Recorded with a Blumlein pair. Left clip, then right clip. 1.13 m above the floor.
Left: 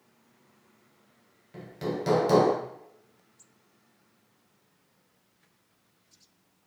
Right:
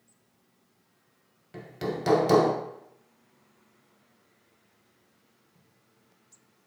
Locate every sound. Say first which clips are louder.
1.5 s hammering: even; 15° right, 0.7 m